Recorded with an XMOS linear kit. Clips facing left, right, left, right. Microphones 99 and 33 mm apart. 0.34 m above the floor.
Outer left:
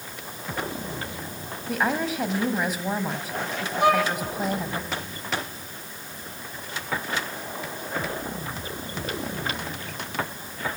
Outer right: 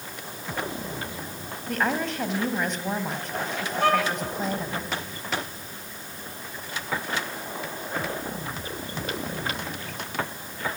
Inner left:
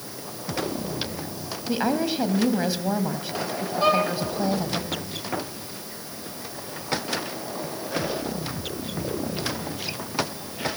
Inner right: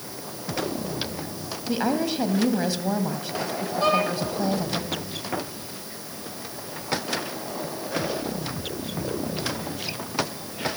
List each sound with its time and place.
1.7 s a woman speaking: 5° left (ahead or behind), 2.5 m
3.8 s a violin: 15° left (ahead or behind), 4 m